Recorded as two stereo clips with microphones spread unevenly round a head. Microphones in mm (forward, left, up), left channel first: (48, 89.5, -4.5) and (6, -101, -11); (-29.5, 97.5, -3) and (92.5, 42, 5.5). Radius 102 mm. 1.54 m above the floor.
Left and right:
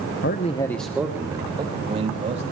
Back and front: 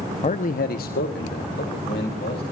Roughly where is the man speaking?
Behind left.